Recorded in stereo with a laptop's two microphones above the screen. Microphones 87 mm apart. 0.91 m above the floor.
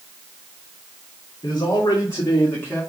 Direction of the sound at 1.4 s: 60° left (ahead or behind).